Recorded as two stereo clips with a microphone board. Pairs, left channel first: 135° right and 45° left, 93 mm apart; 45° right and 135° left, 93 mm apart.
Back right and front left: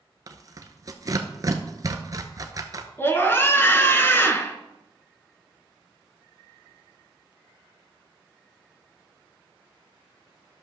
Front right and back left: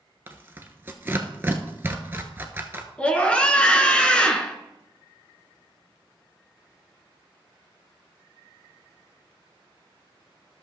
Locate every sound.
0.3 s tearing paper: 75° left, 0.9 m
3.0 s a scream: 110° right, 1.1 m